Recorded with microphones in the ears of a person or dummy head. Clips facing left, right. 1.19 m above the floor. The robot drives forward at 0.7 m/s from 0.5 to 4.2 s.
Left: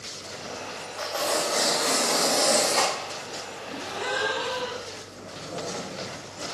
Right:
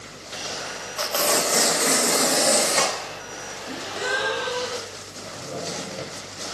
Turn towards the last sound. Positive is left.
turn(degrees=-50)  # may be behind; listen again after turning